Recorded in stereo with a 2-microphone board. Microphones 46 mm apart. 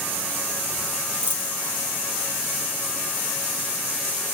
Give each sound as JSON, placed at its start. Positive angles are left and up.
{"t": 1.2, "sound": "a dropped coin", "side_deg": -65, "distance_m": 3.0}